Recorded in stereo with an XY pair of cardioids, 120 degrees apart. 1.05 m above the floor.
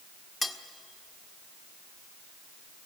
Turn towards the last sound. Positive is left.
turn(degrees=5)